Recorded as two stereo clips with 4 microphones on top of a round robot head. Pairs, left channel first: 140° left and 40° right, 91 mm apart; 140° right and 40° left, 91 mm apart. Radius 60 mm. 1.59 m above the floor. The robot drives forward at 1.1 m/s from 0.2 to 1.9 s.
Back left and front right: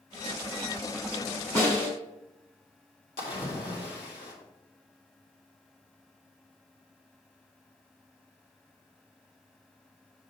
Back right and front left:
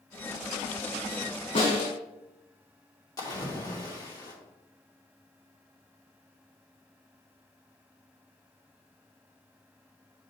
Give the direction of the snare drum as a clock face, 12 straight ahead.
5 o'clock.